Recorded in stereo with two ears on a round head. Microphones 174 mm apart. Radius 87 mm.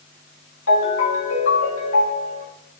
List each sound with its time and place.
0.7 s a ringtone: 70° left (ahead or behind), 1.7 m